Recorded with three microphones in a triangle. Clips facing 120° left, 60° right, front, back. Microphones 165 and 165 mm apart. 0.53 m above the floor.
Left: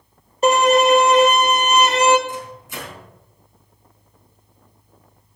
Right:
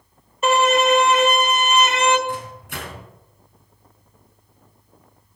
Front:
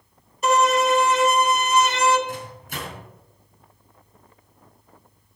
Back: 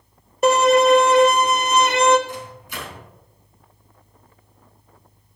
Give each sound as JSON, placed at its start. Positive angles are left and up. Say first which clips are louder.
{"t": 0.4, "sound": "a violin", "louder": "left 3 dB, back 5 dB", "azimuth_deg": 170, "distance_m": 1.2}
{"t": 2.3, "sound": "a microwave", "louder": "right 2 dB, even", "azimuth_deg": -40, "distance_m": 3.5}